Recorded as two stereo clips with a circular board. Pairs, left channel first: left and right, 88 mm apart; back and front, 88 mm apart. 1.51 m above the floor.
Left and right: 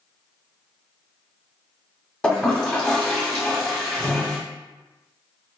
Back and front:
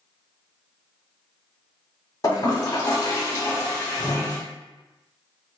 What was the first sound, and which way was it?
A toilet flushing, 160° left.